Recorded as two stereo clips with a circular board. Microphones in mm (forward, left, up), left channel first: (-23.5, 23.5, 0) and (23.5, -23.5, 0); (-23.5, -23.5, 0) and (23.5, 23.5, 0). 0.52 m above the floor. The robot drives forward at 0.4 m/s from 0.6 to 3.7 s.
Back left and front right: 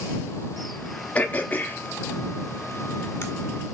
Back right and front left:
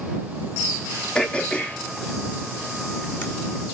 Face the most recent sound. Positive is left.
turn(degrees=175)